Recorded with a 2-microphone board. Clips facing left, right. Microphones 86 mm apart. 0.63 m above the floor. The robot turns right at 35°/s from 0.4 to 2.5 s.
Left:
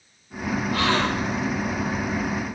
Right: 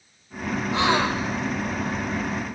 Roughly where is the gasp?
Right.